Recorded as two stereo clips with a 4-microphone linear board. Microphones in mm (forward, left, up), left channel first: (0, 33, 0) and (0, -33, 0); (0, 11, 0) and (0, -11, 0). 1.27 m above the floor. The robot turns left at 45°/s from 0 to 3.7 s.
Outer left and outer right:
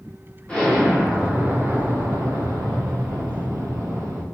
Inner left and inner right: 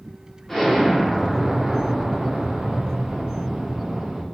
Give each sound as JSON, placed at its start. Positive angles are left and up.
{"t": 0.5, "sound": "an explosion", "azimuth_deg": 15, "distance_m": 0.7}